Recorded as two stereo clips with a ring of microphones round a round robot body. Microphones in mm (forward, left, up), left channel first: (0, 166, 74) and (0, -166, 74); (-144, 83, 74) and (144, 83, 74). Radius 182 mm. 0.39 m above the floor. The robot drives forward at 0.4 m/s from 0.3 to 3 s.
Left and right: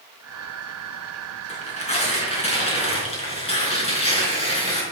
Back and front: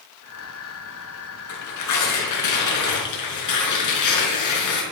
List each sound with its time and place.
1.5 s tearing paper: 160° left, 4 m; by 4.8 s 165° left, 4.5 m